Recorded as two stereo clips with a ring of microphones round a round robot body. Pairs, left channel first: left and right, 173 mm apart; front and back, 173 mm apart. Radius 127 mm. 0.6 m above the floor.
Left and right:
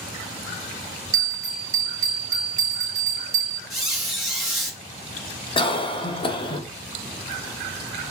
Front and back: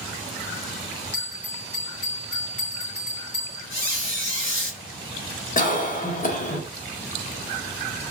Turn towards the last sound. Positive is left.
turn(degrees=35)